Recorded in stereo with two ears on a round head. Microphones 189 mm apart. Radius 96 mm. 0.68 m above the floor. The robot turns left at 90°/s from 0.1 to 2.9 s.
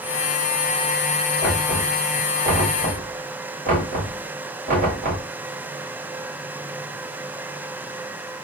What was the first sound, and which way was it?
Knocking, 5° left (ahead or behind).